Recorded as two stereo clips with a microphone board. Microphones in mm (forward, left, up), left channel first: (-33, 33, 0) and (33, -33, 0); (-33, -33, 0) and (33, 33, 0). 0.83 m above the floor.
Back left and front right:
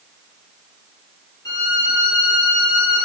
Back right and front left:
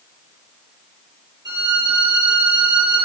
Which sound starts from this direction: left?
A violin, at 1.4 s.